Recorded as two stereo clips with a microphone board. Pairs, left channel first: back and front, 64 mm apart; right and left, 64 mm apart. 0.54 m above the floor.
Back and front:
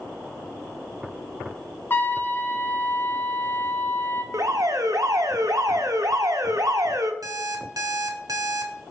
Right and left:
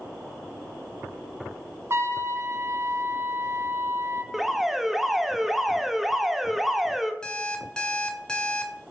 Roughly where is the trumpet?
Behind left.